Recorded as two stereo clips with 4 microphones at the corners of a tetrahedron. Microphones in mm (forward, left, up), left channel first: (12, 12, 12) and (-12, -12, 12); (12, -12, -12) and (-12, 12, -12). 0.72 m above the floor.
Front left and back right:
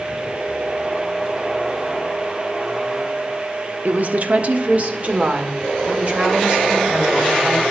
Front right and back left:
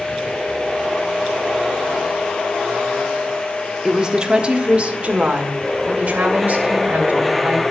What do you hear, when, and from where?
3.9 s a woman speaking: 155° right, 0.8 m; by 7.6 s 175° left, 3.5 m